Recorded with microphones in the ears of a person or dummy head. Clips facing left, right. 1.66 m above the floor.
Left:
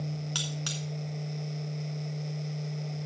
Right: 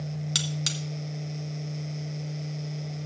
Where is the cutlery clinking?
30° right (ahead or behind), 0.9 m.